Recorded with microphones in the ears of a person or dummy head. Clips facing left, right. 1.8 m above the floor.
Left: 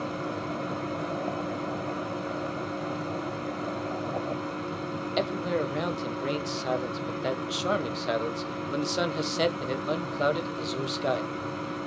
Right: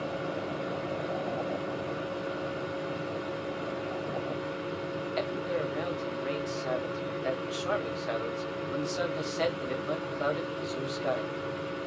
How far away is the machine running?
About 4.5 m.